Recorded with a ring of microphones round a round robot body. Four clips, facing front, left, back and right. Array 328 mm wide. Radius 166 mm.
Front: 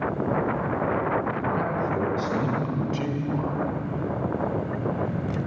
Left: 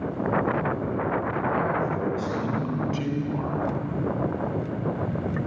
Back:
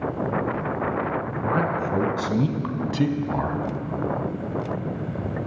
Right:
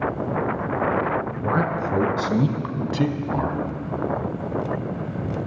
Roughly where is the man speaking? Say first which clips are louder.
Right 3 dB, back 2 dB; behind right.